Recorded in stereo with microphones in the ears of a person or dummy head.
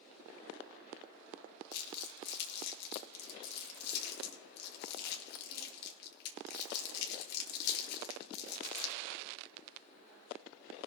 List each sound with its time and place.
1.7 s crumpling: 60° left (ahead or behind), 1.6 m